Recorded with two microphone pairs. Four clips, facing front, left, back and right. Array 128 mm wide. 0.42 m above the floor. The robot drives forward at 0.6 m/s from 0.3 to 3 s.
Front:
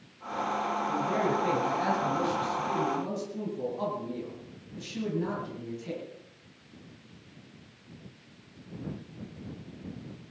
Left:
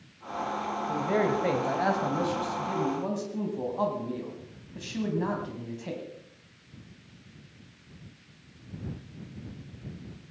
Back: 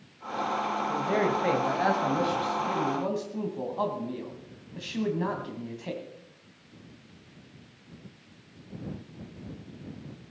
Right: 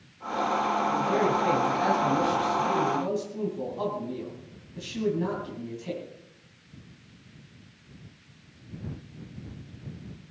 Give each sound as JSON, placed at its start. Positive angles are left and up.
{"t": 0.9, "sound": "a man speaking", "azimuth_deg": 135, "distance_m": 2.0}